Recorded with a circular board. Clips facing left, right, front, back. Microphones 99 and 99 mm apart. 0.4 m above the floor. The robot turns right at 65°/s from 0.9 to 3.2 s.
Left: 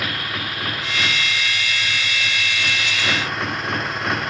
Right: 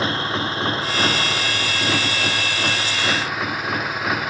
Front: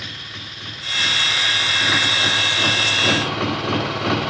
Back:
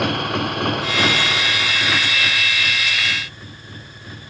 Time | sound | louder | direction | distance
0.0 | a motorcycle | right 5 dB, back 16 dB | 150° right | ?